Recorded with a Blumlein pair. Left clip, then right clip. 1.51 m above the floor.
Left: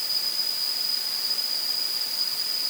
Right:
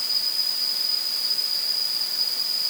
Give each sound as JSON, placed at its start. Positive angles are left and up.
{"t": 0.0, "sound": "an insect", "azimuth_deg": -10}